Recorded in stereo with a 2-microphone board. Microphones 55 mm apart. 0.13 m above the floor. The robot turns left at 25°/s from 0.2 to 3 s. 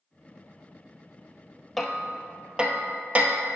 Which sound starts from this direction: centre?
Hammering, at 1.8 s.